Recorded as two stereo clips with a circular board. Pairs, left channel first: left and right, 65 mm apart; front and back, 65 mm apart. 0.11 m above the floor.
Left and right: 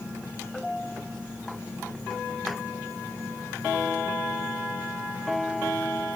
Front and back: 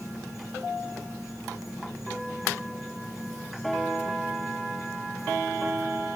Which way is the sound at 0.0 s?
30° left.